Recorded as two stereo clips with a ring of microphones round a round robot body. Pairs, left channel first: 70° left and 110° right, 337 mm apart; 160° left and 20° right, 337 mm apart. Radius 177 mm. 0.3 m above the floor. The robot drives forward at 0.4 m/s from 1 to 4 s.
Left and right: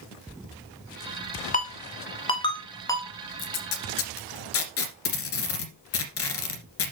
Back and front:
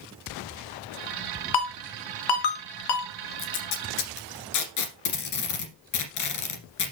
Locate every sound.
1.5 s a ringtone: 135° left, 1.5 m; by 3.1 s 150° left, 2.0 m
3.4 s tape being pulled: 110° left, 1.8 m; by 6.9 s 120° left, 1.9 m